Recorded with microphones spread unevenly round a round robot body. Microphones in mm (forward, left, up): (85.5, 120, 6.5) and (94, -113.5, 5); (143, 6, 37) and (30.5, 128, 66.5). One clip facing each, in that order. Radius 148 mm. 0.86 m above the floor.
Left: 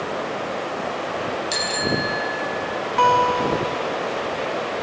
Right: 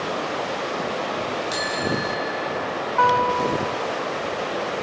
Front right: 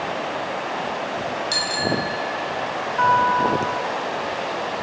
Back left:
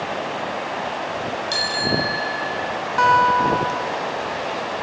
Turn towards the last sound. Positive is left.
turn(degrees=150)